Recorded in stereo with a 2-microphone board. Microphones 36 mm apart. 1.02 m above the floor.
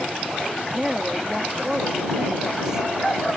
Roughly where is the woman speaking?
Centre.